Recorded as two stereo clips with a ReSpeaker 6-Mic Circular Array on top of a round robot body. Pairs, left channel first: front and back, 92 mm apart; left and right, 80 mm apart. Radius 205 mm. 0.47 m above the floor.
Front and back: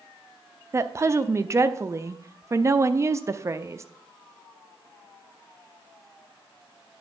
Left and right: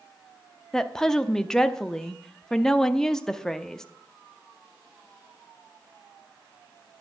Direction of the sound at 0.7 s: 170° left.